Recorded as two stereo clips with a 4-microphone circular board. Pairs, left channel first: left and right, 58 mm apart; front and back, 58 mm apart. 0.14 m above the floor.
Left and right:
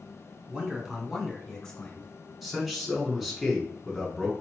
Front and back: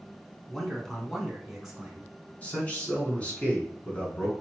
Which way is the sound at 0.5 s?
75° right.